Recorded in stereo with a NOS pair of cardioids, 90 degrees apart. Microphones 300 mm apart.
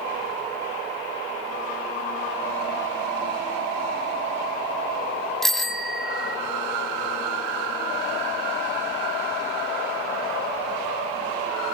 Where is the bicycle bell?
Straight ahead, 2 m.